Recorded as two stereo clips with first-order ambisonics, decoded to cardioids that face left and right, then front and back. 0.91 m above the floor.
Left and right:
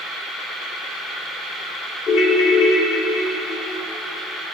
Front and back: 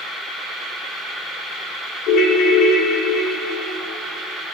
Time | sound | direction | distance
2.1 | a ringtone | 40° left | 1.9 m